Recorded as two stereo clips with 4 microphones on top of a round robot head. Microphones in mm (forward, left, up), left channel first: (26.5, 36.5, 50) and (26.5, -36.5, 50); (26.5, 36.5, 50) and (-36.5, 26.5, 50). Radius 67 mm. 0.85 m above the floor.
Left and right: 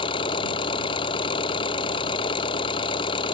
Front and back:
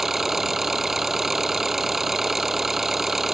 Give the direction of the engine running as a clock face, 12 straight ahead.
9 o'clock.